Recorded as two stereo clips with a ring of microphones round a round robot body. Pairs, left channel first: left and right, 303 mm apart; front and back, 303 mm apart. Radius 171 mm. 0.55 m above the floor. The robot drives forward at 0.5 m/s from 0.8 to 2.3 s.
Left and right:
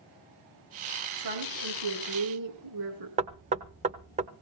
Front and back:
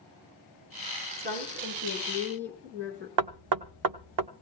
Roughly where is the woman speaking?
Behind right.